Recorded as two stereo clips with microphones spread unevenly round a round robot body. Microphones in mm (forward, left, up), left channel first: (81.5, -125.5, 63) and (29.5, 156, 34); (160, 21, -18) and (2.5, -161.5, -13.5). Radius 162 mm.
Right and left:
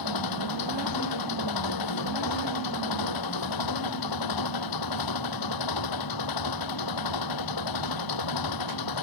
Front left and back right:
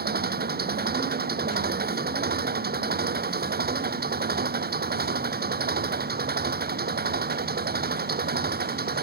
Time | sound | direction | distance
0.0 | an engine running | 80° right | ?